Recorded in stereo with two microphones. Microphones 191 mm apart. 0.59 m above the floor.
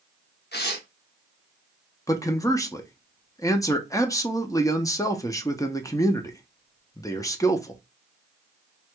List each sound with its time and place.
0.5 s tearing paper: 60° left (ahead or behind), 0.8 m
2.1 s a man speaking: 15° left (ahead or behind), 0.6 m